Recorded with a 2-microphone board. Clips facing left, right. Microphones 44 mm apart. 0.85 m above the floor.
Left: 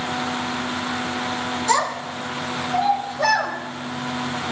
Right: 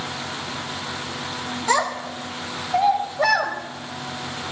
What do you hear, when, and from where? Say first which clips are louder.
1.7 s a child speaking: right 1 dB; 20° right (ahead or behind), 4 m